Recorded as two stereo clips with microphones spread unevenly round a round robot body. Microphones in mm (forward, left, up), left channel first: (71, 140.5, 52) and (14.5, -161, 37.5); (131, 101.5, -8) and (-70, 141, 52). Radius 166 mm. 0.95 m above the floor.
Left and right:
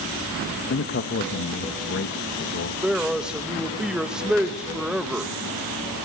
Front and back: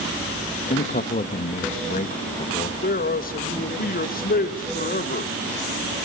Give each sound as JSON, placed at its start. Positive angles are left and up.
{"t": 0.7, "sound": "a man speaking", "azimuth_deg": 25, "distance_m": 1.1}
{"t": 2.8, "sound": "a man speaking", "azimuth_deg": -15, "distance_m": 1.4}